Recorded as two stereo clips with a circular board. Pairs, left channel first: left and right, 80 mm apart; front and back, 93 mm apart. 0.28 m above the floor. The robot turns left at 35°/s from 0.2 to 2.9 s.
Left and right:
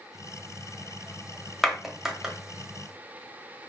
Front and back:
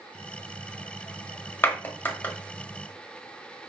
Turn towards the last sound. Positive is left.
turn(degrees=-45)